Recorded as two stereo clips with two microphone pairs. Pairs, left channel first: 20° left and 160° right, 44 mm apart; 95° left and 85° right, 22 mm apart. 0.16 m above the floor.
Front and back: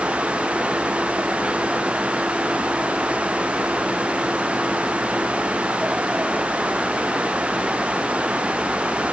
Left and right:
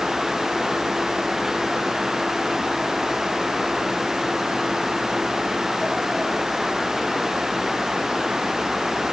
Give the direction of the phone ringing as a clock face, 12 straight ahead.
I don't hear a phone ringing.